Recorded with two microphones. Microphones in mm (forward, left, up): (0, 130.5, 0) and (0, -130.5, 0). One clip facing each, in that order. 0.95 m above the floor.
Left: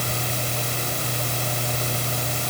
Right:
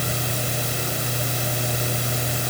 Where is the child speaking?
I don't hear a child speaking.